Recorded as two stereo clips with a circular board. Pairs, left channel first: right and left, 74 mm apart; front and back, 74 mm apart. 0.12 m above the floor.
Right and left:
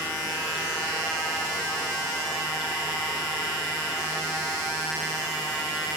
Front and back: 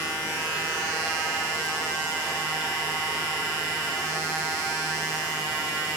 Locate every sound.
Only background noise.